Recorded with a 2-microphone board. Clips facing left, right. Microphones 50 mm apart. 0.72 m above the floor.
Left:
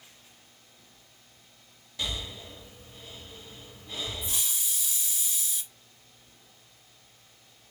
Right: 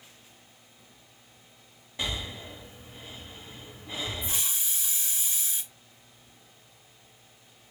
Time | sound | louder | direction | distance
2.0 | breathing | right 2 dB | 25° right (ahead or behind) | 1.1 m
4.2 | a hiss | right 1 dB | 30° right (ahead or behind) | 1.2 m